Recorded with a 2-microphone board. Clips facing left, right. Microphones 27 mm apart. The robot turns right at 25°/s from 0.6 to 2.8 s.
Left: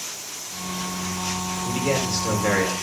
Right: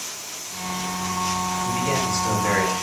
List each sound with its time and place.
1.6 s a man speaking: 75° left (ahead or behind), 2.5 m; by 2.7 s 50° left (ahead or behind), 2.5 m